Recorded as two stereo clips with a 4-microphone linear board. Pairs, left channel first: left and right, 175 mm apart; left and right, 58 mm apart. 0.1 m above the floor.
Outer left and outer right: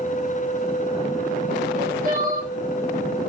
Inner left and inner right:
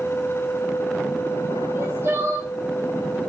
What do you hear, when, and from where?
1.7 s crying: 45° right (ahead or behind), 3 m